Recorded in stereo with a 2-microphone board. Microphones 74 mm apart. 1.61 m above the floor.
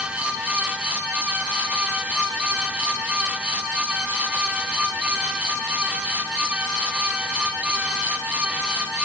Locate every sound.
Only background noise.